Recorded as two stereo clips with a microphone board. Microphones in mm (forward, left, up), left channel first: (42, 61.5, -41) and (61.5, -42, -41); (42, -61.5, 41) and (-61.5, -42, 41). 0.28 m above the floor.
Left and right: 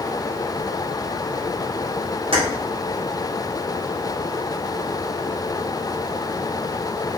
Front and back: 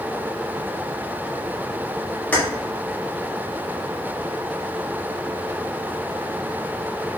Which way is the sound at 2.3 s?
85° right.